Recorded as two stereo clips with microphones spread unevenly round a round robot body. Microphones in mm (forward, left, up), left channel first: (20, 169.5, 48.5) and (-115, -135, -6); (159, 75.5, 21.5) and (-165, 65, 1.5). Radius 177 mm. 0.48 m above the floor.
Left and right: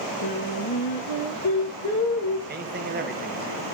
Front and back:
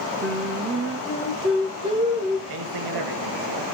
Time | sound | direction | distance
0.2 | singing | 110° left | 4.5 m
2.5 | a man speaking | 170° right | 2 m